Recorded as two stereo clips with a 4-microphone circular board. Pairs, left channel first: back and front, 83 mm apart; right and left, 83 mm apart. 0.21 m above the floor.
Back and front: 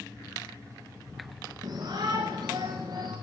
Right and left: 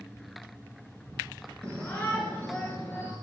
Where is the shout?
20° right, 3 m; by 3.1 s 30° right, 4 m.